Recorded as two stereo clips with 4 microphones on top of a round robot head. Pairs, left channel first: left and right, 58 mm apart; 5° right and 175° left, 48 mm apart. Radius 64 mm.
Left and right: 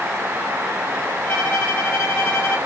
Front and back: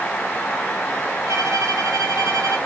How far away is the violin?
About 2.5 m.